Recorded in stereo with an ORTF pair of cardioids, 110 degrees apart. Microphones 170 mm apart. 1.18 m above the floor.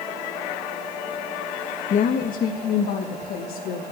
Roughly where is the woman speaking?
Ahead left.